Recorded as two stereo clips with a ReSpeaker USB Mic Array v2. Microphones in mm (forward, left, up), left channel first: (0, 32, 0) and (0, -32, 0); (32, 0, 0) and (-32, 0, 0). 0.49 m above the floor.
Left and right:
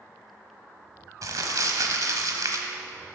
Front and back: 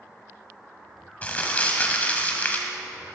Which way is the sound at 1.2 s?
65° right.